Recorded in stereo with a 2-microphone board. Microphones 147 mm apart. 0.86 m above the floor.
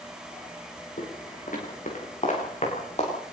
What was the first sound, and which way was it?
Footsteps, 65° left (ahead or behind).